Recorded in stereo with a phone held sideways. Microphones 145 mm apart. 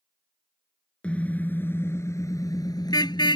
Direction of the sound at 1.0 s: 10° left (ahead or behind).